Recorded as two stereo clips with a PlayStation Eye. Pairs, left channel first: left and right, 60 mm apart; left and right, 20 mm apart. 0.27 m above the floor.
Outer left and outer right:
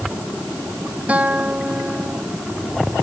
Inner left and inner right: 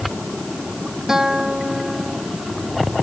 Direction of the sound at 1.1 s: 25° right (ahead or behind).